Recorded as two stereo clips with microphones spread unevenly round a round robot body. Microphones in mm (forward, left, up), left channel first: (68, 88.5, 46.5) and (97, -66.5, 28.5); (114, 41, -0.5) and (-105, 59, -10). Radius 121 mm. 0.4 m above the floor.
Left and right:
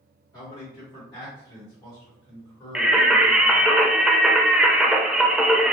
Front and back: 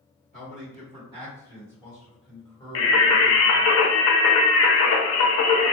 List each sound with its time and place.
0.3 s a man speaking: 165° left, 1.6 m; by 3.7 s 25° left, 1.6 m
2.8 s singing: 5° left, 0.6 m